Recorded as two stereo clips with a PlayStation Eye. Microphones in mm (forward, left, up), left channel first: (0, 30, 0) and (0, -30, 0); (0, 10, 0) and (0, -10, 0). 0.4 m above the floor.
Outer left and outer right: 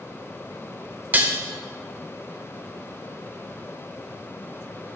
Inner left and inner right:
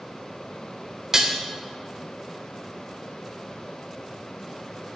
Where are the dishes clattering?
30° right (ahead or behind), 0.8 m.